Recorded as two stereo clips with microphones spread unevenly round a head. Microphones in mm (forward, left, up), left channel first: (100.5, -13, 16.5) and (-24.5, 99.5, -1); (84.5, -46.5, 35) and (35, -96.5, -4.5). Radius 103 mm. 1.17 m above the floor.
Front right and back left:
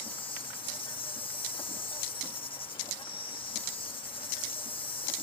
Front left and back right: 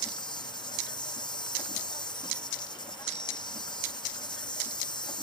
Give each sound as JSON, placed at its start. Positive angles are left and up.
{"t": 0.0, "sound": "an insect", "azimuth_deg": 20}